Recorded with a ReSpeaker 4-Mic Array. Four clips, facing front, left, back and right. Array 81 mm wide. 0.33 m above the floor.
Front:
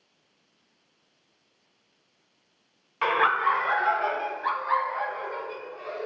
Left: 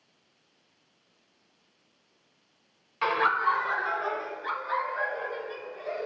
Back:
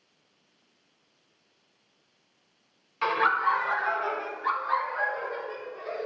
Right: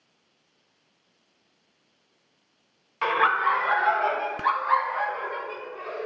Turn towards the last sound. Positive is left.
turn(degrees=-75)